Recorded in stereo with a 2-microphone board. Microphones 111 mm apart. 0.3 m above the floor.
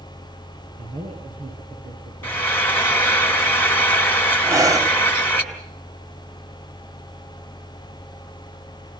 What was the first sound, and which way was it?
A man speaking, 75° right (ahead or behind).